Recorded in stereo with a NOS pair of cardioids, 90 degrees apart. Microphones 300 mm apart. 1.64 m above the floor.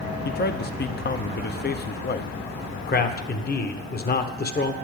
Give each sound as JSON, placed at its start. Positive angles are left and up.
{"t": 0.2, "sound": "a man speaking", "azimuth_deg": 35, "distance_m": 0.8}
{"t": 2.9, "sound": "a man speaking", "azimuth_deg": 30, "distance_m": 1.3}